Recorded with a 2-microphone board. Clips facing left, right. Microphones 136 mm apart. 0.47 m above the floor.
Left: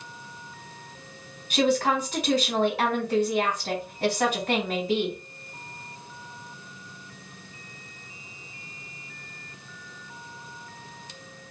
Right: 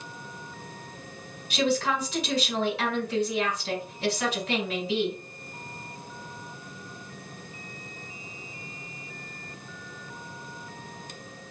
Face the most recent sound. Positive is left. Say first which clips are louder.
# left 3 dB
turn(degrees=55)  # may be behind; listen again after turning